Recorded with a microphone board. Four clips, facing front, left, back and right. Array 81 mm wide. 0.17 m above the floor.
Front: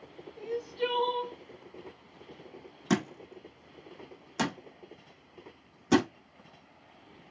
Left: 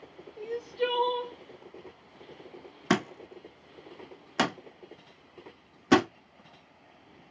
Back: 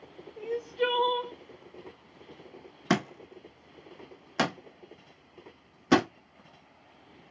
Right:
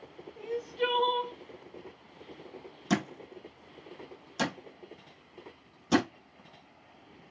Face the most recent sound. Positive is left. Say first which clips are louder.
# left 3 dB, back 1 dB
turn(degrees=125)